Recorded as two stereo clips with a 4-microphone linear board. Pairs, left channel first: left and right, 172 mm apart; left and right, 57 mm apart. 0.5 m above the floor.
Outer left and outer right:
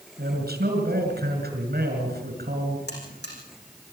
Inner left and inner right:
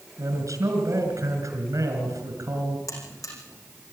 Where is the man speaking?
70° right (ahead or behind), 6 m.